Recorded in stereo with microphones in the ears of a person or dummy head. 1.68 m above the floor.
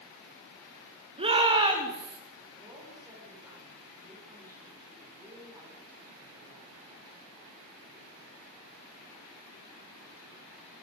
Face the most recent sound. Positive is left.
turn(degrees=-20)  # may be behind; listen again after turning